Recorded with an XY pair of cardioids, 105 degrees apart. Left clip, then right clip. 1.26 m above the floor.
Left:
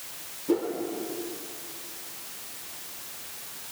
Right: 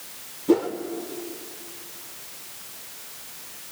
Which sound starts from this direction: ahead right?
A whoosh, at 0.5 s.